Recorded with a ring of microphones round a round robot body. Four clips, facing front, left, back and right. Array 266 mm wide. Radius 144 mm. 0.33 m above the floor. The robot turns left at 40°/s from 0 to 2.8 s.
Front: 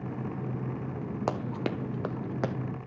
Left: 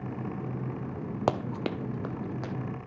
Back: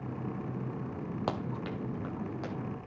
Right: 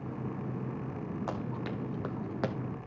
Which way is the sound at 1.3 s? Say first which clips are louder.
Left 7 dB, front 5 dB; 80° left.